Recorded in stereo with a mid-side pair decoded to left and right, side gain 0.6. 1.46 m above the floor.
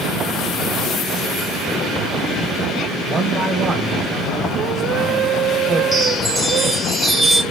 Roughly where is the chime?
Ahead.